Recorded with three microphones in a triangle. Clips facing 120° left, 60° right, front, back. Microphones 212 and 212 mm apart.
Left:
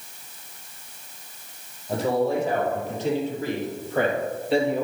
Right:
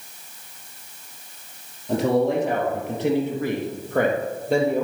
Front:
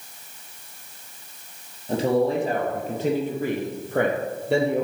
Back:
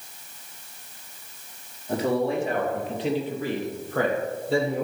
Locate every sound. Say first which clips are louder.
1.9 s a man speaking: right 3 dB, front 3 dB; 60° right, 3.5 m; by 4.8 s 10° right, 4 m